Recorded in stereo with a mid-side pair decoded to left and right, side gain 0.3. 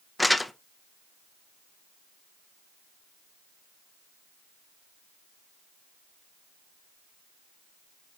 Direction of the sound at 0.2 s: 15° left.